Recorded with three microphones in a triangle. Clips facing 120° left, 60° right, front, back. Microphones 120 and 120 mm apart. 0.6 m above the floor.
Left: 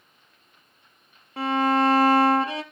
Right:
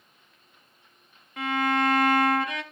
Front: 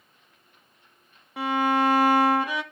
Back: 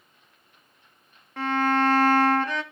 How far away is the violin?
About 0.9 m.